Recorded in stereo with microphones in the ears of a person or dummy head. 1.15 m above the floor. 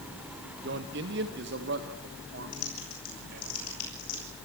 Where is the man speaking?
65° right (ahead or behind), 1.3 m; by 3.5 s 70° right (ahead or behind), 5 m.